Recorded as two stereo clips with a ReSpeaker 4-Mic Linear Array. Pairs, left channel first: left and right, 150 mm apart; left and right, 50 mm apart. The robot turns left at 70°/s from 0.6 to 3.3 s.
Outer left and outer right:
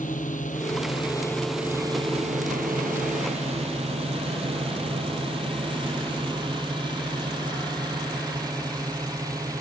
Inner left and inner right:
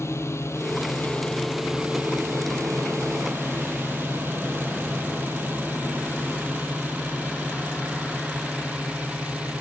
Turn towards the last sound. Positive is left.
turn(degrees=-25)  # may be behind; listen again after turning